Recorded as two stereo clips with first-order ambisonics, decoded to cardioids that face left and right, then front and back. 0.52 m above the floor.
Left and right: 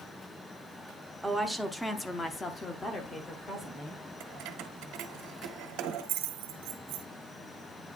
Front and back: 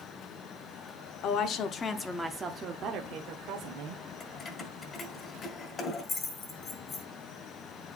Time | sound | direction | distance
1.2 | a woman speaking | 5° right | 1.1 m
4.2 | keys jangling | 65° right | 1.5 m